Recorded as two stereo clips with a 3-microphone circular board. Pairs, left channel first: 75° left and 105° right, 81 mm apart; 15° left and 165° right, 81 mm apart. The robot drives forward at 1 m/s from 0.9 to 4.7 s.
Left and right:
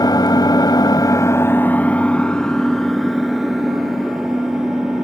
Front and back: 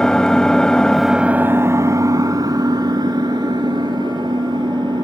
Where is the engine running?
95° left, 0.8 m; by 5.0 s 170° left, 4 m.